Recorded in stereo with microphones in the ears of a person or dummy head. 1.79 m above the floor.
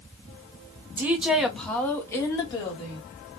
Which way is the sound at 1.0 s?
10° right (ahead or behind).